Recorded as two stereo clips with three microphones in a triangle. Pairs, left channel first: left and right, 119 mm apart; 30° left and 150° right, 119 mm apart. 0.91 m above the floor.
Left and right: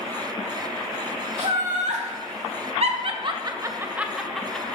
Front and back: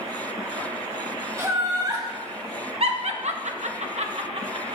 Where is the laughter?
85° right, 2.0 m; by 4.8 s 170° left, 1.4 m.